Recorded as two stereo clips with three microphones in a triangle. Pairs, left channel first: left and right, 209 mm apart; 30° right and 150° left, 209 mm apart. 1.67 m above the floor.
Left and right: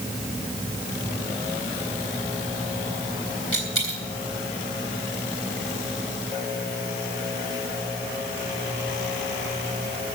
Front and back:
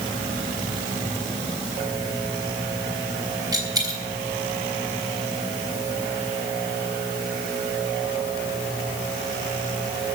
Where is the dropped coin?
80° left, 3.5 m.